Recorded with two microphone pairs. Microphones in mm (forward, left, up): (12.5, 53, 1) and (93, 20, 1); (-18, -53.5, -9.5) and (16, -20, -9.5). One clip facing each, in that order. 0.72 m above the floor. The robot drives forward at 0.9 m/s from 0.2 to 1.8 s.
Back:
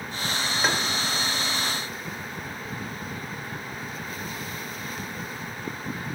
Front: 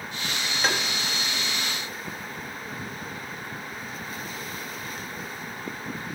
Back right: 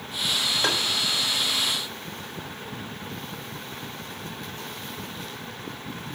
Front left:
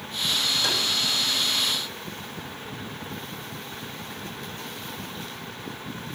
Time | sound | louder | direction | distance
0.6 | tapping | even, back right 4 dB | 120° right | 1.1 m